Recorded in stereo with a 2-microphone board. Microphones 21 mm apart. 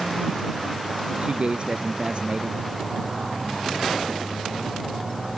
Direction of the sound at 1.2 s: 50° right (ahead or behind).